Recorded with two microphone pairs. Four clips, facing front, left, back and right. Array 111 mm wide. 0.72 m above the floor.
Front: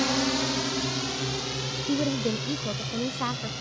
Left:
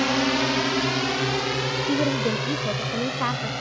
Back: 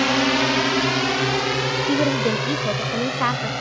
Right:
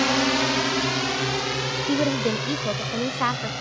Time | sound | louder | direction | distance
0.0 | a drone | even, back 7 dB | 160° right | ?
1.9 | a woman speaking | right 1 dB, back 5 dB | 155° right | ?